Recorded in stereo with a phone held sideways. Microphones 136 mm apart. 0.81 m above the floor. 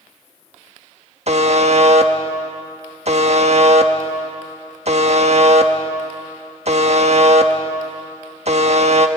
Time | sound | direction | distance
1.3 | a buzzer | 55° right (ahead or behind) | 1.2 m